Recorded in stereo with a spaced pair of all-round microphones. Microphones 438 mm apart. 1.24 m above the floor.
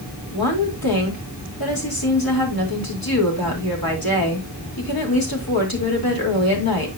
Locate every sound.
0.3 s a woman speaking: 50° left (ahead or behind), 3.5 m